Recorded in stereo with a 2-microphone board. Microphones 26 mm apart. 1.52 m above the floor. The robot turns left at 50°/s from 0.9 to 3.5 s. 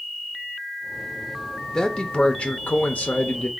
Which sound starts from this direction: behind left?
A man speaking, at 1.7 s.